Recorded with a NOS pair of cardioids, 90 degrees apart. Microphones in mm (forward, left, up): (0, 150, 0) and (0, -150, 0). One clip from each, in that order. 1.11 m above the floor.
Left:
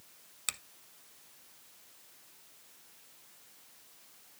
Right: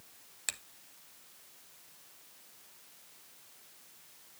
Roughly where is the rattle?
No rattle in this recording.